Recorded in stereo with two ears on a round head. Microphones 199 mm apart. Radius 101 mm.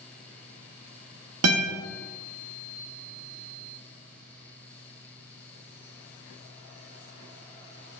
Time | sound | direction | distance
1.4 | a guitar | 75° right (ahead or behind) | 0.6 m